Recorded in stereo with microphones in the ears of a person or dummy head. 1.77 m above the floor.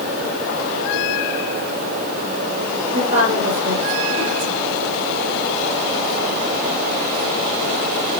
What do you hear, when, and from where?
2.9 s a woman speaking: 45° right (ahead or behind), 6.5 m